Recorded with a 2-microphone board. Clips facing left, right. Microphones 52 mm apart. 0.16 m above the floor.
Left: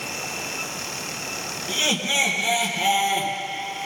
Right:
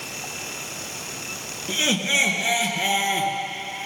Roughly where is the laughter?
Right.